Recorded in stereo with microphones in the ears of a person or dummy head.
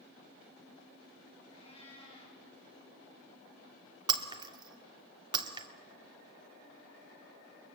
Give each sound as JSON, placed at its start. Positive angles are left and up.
{"t": 1.5, "sound": "a cat meowing", "side_deg": 35, "distance_m": 5.5}
{"t": 4.1, "sound": "breaking glass", "side_deg": -30, "distance_m": 1.7}